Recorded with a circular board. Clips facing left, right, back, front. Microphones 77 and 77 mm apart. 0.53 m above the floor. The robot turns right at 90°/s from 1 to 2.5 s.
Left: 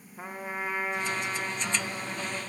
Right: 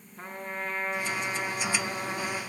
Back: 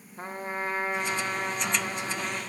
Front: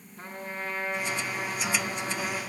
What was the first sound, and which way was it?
A trumpet, 165° left.